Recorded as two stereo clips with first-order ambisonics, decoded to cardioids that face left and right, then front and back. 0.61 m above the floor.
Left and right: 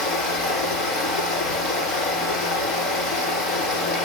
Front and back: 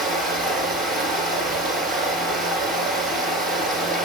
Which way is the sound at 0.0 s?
115° left.